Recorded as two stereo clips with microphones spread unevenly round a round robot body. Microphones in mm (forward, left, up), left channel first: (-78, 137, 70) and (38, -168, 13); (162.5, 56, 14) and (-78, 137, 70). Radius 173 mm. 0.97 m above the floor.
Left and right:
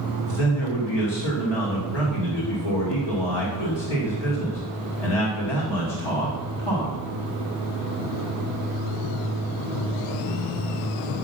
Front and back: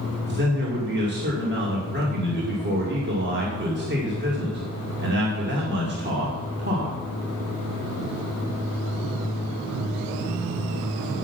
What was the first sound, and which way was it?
A man speaking, 110° left.